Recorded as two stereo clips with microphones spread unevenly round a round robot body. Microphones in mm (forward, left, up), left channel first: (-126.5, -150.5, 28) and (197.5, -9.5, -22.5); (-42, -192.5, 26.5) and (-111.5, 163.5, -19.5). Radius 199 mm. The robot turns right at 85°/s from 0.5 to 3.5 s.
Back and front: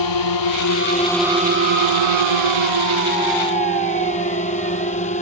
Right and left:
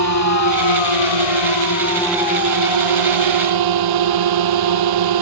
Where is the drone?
125° right; by 5.2 s 130° left.